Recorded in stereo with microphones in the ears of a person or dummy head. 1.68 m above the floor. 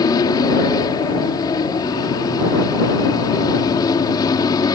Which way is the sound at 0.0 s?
25° left (ahead or behind).